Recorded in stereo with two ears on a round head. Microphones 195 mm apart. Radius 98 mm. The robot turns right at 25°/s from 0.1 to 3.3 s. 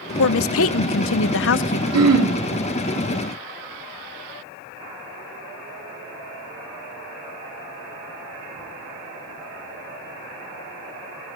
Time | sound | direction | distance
0.2 | a woman speaking | 80° left | 0.6 m
1.9 | throat clearing | 80° right | 3.5 m